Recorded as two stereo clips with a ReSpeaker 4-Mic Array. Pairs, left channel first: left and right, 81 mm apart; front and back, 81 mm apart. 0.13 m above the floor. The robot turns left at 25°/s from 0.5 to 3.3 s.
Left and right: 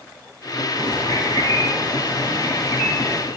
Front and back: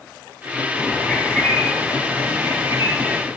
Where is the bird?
75° right, 6 m; by 3.2 s 135° right, 6 m.